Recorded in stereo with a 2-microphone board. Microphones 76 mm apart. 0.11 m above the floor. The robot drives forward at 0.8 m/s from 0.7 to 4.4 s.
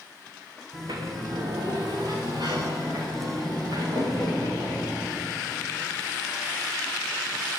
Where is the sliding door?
70° right (ahead or behind), 7.5 m; by 5.3 s 55° right (ahead or behind), 9 m.